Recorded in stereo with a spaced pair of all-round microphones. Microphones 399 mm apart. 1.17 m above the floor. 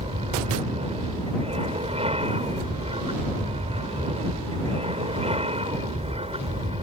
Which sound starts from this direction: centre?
An aircraft, at 0.0 s.